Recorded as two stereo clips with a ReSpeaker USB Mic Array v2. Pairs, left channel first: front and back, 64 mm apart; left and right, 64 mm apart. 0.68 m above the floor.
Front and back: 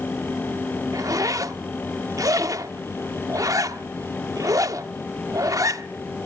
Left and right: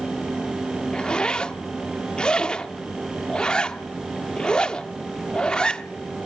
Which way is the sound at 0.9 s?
165° left.